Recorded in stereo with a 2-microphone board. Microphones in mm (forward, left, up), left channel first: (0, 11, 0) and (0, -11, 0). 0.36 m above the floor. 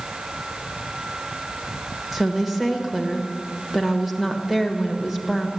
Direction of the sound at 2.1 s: 15° right (ahead or behind).